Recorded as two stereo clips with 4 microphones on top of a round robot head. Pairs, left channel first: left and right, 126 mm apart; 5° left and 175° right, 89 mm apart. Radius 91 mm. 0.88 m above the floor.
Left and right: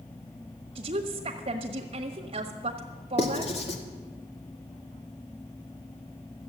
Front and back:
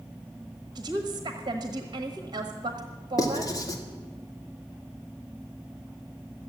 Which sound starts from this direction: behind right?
A woman speaking, at 0.8 s.